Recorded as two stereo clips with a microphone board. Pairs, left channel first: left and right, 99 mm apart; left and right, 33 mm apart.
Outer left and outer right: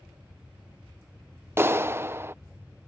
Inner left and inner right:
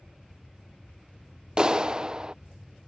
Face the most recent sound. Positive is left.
turn(degrees=-25)  # may be behind; listen again after turning